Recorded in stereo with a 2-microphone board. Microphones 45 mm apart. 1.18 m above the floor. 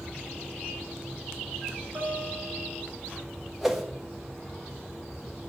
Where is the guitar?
60° right (ahead or behind), 3 m.